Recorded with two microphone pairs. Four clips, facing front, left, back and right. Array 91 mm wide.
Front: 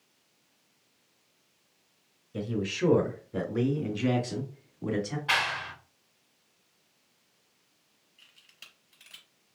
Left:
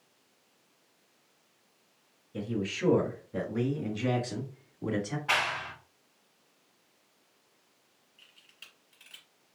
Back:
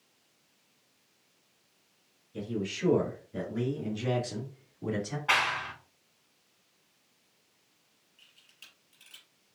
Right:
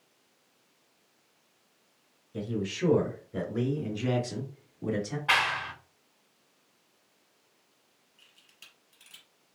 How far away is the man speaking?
About 2.5 m.